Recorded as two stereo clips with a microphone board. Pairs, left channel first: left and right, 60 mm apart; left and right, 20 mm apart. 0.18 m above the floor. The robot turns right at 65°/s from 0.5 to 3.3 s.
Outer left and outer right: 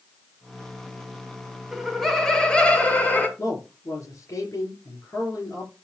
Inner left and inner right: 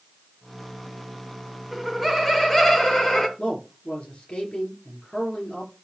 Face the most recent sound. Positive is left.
turn(degrees=65)  # may be behind; listen again after turning